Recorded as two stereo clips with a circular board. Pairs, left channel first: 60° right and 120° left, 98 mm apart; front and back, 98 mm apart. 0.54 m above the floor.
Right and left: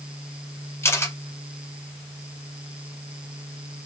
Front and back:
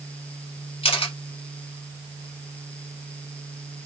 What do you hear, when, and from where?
0.8 s a camera shutter: 5° left, 1.0 m